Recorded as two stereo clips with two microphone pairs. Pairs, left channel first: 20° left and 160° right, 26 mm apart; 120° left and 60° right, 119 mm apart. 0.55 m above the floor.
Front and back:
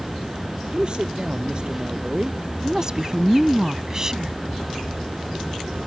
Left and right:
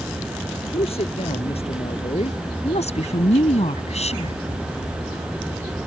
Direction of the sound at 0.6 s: 150° left.